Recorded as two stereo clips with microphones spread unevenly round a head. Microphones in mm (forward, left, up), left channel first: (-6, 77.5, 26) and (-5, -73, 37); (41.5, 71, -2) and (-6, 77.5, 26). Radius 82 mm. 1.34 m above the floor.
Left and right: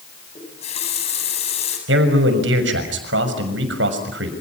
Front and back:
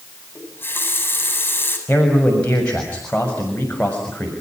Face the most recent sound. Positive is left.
turn(degrees=-90)